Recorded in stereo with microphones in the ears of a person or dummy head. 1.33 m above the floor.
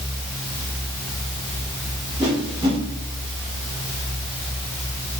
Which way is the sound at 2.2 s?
20° right (ahead or behind).